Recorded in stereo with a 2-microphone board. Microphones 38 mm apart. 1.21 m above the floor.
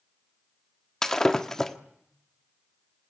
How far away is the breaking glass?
About 1.4 m.